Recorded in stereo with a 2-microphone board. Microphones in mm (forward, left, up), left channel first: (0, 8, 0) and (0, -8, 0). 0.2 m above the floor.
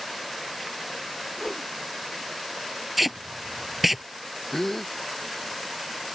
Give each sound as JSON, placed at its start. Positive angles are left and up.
{"t": 1.4, "sound": "a whoosh", "side_deg": -5}
{"t": 3.0, "sound": "tape being pulled", "side_deg": -10}
{"t": 4.5, "sound": "a gasp", "side_deg": 20}